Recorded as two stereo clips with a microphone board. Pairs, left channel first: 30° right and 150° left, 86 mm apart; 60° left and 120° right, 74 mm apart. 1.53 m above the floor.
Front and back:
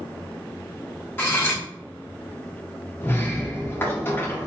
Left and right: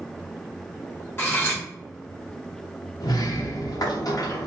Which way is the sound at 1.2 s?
20° left.